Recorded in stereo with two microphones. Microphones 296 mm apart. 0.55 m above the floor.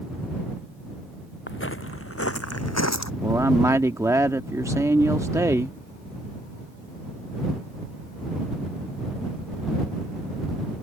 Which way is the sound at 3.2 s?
10° right (ahead or behind).